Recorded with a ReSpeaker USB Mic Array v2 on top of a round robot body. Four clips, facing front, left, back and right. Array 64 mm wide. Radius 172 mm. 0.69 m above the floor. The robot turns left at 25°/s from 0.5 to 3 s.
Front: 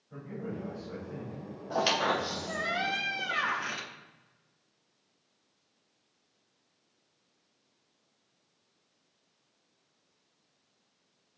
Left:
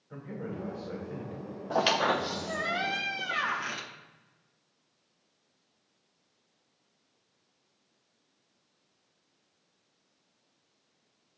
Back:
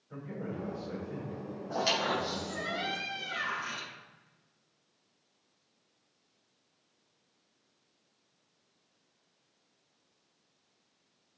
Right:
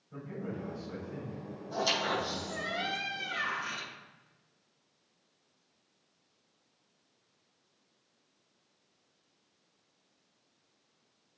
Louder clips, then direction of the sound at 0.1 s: Left 1 dB, even; 120° left.